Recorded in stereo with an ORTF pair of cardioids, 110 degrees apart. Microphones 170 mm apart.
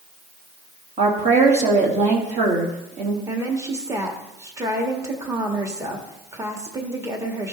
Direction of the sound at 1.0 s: 40° right.